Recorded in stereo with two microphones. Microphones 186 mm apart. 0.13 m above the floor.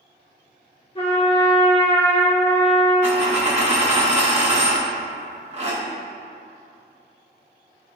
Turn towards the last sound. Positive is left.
turn(degrees=-35)  # may be behind; listen again after turning